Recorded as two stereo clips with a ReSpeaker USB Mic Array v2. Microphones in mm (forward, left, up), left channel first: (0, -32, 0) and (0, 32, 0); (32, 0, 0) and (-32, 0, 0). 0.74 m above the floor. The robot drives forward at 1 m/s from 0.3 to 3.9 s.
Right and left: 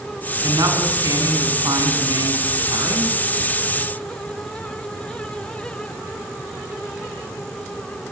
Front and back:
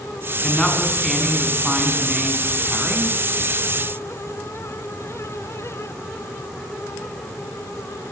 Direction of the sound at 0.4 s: 85° left.